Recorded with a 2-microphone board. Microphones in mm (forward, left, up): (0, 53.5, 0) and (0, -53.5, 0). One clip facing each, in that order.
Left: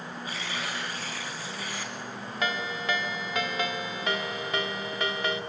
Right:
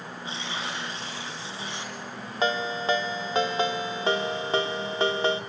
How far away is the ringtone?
About 1.4 m.